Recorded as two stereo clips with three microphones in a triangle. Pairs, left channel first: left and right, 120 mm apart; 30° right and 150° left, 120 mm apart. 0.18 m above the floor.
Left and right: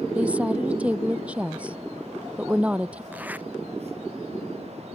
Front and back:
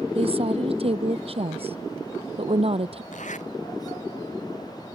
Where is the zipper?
10° right.